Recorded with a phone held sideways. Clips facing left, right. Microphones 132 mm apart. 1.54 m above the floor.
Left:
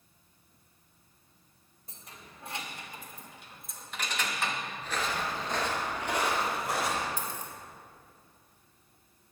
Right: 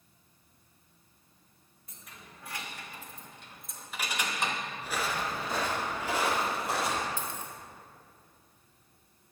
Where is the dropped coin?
45° left (ahead or behind), 2 m.